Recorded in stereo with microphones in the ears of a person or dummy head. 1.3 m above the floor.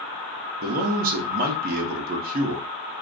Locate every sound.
0.6 s a man speaking: 40° right (ahead or behind), 0.5 m